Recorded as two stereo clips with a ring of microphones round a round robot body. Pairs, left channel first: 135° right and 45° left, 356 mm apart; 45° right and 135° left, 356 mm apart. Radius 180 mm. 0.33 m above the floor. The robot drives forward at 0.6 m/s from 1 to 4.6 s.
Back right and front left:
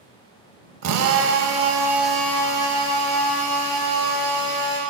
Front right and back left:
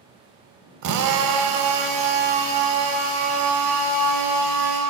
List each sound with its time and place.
0.8 s a drill: 95° left, 0.8 m; by 4.8 s 160° left, 2.5 m